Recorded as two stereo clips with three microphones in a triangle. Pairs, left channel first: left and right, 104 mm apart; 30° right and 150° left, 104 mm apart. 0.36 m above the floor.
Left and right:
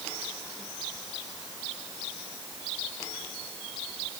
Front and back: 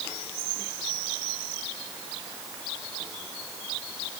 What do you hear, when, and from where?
Only background noise.